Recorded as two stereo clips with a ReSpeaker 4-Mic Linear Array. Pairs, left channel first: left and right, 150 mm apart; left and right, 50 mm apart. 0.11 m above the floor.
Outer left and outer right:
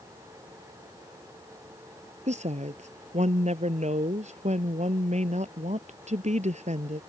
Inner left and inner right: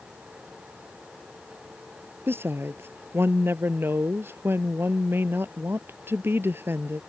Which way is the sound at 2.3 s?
50° right (ahead or behind).